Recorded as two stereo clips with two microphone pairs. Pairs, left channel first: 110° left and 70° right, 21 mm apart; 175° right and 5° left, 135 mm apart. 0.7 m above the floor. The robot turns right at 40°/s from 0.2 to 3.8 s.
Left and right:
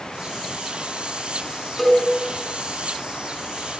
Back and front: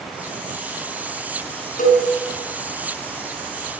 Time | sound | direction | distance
1.8 | a cowbell | 160° right | 7.5 m